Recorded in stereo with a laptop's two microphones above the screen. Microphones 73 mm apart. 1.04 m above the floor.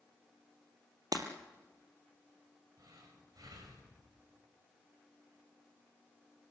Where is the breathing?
65° right (ahead or behind), 7 m.